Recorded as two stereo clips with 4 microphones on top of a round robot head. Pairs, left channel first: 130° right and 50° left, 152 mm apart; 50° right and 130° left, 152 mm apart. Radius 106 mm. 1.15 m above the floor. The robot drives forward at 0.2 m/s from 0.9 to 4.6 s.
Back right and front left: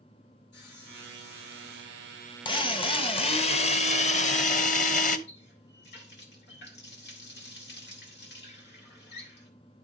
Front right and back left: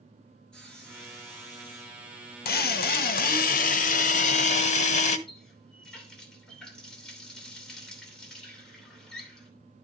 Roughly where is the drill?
Right.